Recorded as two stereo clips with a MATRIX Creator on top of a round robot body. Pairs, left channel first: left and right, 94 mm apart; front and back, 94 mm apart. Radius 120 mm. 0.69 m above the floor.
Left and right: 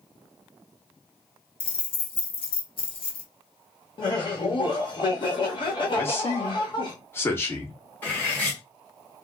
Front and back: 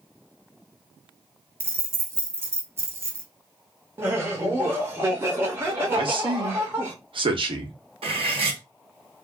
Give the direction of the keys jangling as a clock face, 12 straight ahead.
8 o'clock.